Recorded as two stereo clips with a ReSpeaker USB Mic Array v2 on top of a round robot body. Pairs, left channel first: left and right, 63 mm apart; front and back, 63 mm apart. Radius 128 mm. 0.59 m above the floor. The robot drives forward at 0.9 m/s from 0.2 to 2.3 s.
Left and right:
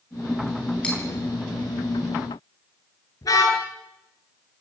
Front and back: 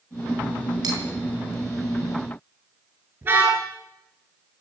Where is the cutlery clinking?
165° left, 6 m.